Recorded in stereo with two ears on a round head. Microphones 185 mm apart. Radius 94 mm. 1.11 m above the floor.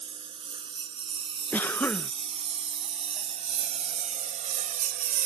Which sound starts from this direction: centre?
A cough, at 1.5 s.